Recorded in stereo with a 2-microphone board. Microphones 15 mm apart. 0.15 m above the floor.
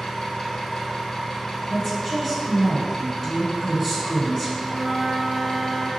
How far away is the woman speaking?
About 1.9 m.